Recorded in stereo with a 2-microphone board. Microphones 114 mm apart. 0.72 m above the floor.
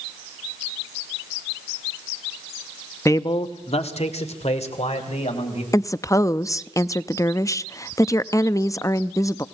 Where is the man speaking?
25° left (ahead or behind), 0.7 m; by 5.6 s 80° left, 4.5 m.